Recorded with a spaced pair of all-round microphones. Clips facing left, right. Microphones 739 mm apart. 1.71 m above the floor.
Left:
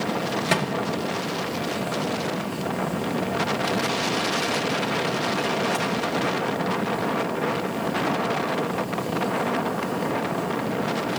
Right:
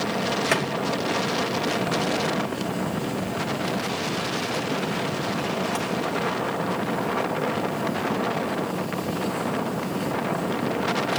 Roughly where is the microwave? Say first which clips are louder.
Even; left.